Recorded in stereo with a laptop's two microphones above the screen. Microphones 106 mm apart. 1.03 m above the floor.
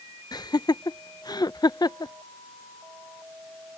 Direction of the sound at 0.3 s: 40° left (ahead or behind).